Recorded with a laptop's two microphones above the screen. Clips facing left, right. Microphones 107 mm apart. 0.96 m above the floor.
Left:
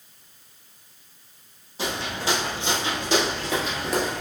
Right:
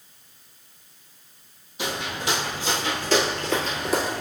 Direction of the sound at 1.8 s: 35° left (ahead or behind).